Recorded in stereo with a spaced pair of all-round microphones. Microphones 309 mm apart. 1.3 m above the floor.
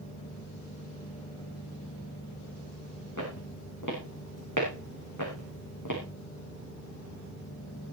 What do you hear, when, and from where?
3.2 s footsteps: 70° left (ahead or behind), 7.5 m; by 6.0 s 75° left (ahead or behind), 5.5 m